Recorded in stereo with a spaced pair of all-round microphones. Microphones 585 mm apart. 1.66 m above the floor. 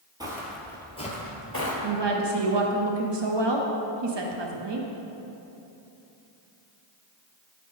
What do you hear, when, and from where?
0.2 s footsteps: 5° right (ahead or behind), 1.9 m; by 1.7 s 25° left (ahead or behind), 1.8 m
1.8 s a woman speaking: 45° right (ahead or behind), 0.8 m